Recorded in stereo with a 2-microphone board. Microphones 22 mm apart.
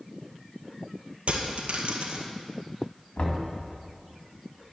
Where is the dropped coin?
60° right (ahead or behind), 2 m.